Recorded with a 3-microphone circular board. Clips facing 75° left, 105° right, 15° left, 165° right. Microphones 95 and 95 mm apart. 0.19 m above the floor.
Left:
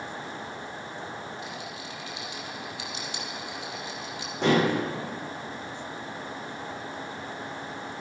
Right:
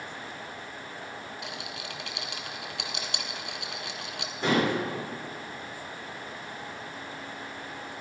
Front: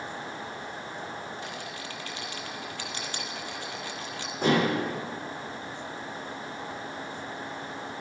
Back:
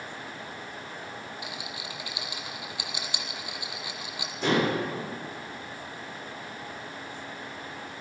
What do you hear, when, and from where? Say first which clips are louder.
1.4 s a rattle: left 1 dB, front 1 dB; 85° right, 1.4 m
4.4 s dishes clattering: left 3 dB, front 1 dB; 55° left, 7.5 m